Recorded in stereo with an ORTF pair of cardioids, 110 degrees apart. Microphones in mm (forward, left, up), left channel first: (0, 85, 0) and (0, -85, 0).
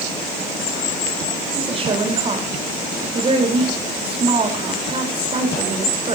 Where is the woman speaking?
35° right, 6 m.